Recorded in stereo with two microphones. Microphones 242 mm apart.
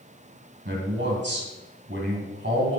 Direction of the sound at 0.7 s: 45° right (ahead or behind).